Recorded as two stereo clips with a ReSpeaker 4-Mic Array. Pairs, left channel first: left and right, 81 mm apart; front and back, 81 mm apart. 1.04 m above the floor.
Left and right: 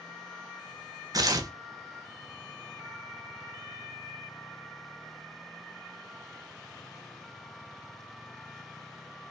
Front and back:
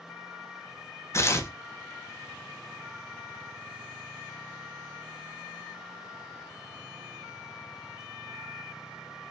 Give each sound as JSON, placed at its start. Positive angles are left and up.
{"t": 1.1, "sound": "tearing paper", "azimuth_deg": -50, "distance_m": 0.6}